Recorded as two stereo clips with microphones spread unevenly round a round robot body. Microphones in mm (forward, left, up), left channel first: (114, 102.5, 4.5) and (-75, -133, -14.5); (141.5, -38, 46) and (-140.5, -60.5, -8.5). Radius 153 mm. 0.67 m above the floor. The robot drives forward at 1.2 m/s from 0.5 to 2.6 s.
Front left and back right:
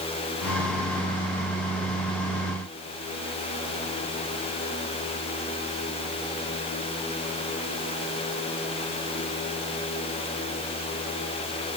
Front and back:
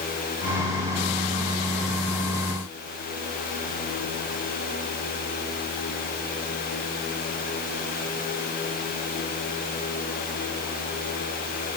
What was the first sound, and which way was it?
Only background noise.